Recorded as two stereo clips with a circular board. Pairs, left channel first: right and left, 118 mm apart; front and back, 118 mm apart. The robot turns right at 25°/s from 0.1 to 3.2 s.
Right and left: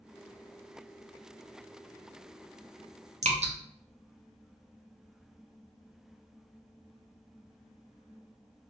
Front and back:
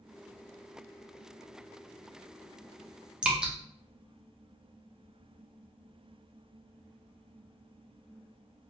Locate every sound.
3.2 s dripping: 100° left, 0.5 m